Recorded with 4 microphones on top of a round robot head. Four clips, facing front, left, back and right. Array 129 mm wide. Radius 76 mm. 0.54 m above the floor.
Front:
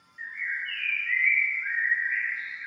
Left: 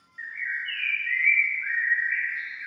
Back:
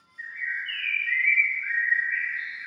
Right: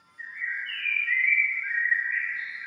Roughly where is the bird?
Left.